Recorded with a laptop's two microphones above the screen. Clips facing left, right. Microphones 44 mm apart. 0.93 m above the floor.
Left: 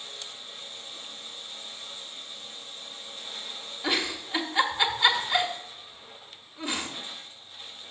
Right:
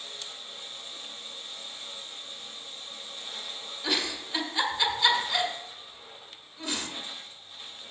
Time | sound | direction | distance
3.8 | a giggle | 15° left (ahead or behind) | 1.8 m